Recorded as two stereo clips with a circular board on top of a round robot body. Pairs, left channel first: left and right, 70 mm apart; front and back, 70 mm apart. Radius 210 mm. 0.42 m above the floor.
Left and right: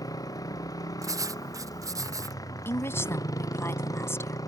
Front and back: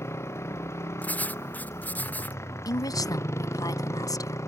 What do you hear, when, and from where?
0.0 s a motorcycle: 55° left; by 4.5 s 50° left
1.0 s writing: 65° right
2.6 s a woman speaking: 35° left